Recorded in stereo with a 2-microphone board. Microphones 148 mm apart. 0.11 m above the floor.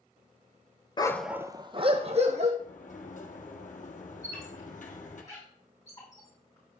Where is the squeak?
20° left (ahead or behind), 5 m.